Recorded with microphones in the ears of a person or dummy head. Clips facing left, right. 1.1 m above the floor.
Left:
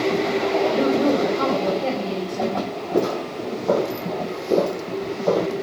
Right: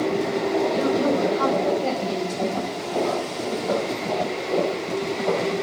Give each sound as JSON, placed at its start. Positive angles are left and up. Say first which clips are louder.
{"t": 0.7, "sound": "a woman speaking", "louder": "left 2 dB", "side_deg": 20, "distance_m": 4.5}
{"t": 2.9, "sound": "footsteps", "louder": "left 3 dB", "side_deg": 70, "distance_m": 3.5}